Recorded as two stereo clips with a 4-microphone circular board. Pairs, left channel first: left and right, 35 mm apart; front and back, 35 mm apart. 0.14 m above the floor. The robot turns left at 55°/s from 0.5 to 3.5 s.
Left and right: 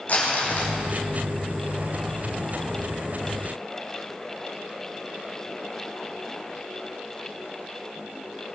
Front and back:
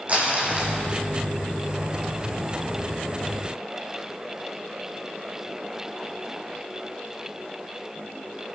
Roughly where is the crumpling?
Behind left.